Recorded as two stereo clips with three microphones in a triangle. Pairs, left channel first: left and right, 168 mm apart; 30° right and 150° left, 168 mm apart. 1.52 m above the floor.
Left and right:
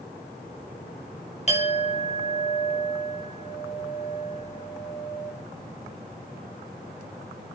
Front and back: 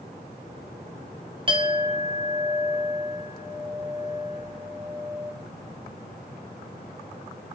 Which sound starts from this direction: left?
A clink, at 1.5 s.